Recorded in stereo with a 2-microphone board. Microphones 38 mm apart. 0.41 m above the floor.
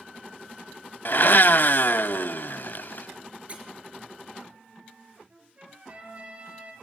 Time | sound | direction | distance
1.1 | a blender | 60° left (ahead or behind) | 0.7 m
3.5 | a squeak | 30° right (ahead or behind) | 4 m
5.3 | a trumpet | 30° right (ahead or behind) | 6 m